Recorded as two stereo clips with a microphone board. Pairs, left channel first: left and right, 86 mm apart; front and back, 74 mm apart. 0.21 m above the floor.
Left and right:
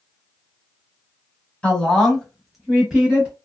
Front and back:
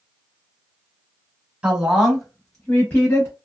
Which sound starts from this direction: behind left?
A woman speaking, at 1.6 s.